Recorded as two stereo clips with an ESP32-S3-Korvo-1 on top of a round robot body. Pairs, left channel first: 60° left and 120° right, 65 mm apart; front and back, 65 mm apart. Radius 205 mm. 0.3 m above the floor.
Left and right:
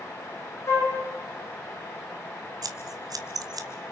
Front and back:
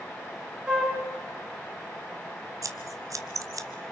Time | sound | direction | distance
0.7 | a flute | 105° left | 6.5 m
2.6 | scissors | 145° right | 0.9 m